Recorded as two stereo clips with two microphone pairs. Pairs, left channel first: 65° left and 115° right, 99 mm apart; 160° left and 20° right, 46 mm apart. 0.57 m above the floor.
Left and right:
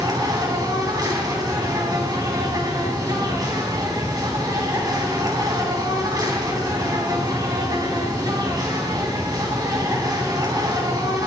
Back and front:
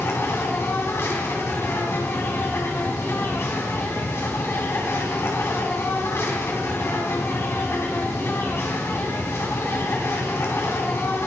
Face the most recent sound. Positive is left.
turn(degrees=-165)